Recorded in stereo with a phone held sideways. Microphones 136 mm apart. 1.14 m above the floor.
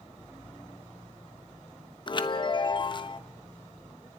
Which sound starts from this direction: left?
A chime, at 2.1 s.